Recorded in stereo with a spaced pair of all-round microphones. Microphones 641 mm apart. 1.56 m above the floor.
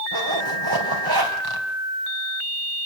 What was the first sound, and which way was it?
A zipper, 35° right (ahead or behind).